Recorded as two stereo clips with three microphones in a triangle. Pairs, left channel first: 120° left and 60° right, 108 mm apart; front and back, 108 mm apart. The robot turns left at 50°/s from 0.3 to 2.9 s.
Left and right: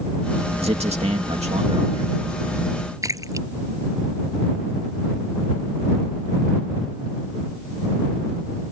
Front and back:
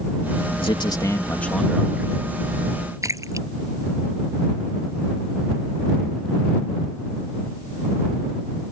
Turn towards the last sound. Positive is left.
turn(degrees=-120)